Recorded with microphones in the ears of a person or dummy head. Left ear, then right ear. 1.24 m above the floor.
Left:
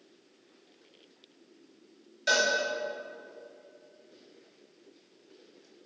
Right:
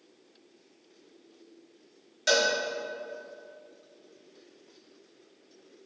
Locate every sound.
2.3 s a cowbell: 15° right (ahead or behind), 3 m